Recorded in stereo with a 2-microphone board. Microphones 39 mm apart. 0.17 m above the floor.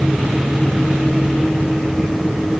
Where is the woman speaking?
I don't hear a woman speaking.